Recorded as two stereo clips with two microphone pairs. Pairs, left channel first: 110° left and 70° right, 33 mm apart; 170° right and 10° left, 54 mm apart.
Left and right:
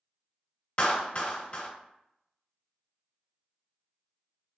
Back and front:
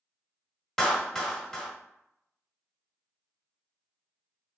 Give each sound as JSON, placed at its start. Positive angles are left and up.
{"t": 0.8, "sound": "a clap", "azimuth_deg": 105, "distance_m": 0.8}